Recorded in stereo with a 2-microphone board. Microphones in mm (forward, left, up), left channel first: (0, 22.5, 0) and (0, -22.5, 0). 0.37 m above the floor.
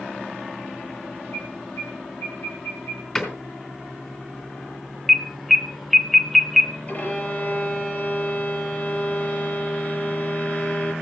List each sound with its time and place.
1.3 s an alarm: 75° left (ahead or behind), 6.5 m
3.1 s a door slam: 10° left (ahead or behind), 3 m
5.1 s an alarm: centre (ahead or behind), 0.8 m
6.9 s a violin: 35° left (ahead or behind), 9.5 m